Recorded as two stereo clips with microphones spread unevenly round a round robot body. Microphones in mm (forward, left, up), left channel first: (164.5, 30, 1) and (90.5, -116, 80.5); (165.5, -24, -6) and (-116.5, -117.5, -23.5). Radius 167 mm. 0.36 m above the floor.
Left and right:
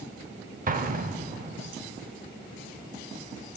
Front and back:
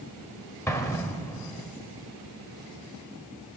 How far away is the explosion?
About 0.8 m.